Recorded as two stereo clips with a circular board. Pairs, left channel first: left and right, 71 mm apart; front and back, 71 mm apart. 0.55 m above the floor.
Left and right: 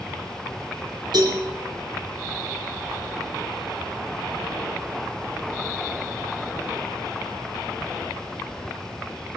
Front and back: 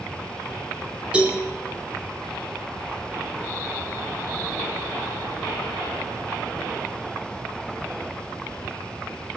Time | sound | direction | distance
1.1 | a cowbell | 105° right | 6.5 m